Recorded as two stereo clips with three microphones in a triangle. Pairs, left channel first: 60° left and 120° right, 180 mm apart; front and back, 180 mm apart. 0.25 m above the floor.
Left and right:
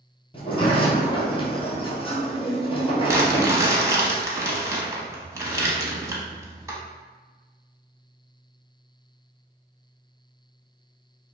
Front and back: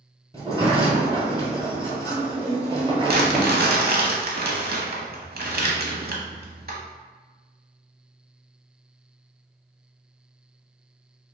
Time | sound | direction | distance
0.3 | a sliding door | 115° left | 0.9 m
3.1 | crumpling | 170° left | 0.6 m